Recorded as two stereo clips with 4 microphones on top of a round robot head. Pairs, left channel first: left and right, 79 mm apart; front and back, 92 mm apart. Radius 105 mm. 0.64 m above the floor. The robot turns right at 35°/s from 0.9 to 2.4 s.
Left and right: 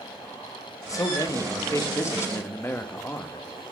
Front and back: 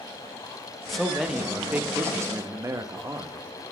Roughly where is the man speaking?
Left.